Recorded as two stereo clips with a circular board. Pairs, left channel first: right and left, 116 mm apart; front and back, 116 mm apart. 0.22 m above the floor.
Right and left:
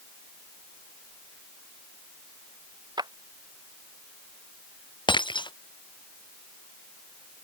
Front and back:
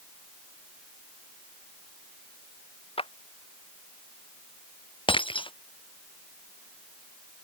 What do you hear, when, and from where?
3.0 s a clap: 35° left
5.1 s breaking glass: 45° right